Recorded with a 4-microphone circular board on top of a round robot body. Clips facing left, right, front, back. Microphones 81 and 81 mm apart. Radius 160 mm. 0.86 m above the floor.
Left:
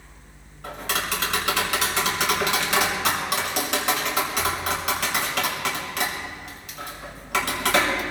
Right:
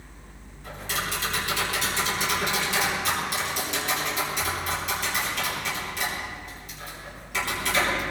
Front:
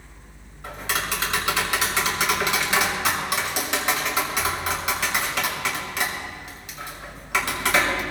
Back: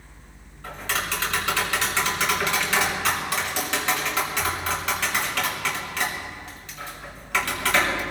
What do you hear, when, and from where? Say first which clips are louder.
0.6 s tapping: left 3 dB, front 1 dB; 75° left, 6 m